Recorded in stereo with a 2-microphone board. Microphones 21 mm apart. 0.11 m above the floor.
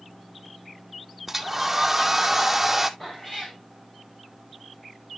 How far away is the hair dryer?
About 0.8 m.